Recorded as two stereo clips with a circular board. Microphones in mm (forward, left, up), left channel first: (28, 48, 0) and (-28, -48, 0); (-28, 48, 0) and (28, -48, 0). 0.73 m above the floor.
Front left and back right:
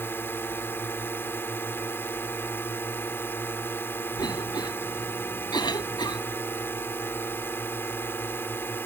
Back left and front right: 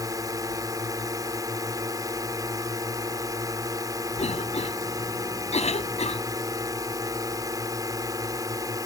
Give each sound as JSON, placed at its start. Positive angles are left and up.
{"t": 0.0, "sound": "a drone", "azimuth_deg": -10}
{"t": 4.2, "sound": "a cough", "azimuth_deg": 110}